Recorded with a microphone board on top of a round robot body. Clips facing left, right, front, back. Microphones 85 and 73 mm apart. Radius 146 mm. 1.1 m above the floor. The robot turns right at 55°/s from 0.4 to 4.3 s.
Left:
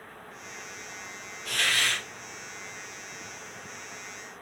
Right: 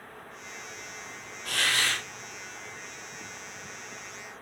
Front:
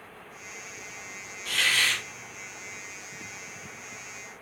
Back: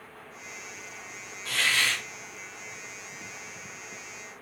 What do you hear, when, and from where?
1.4 s a hiss: 135° right, 1.5 m; by 2.0 s 105° right, 1.5 m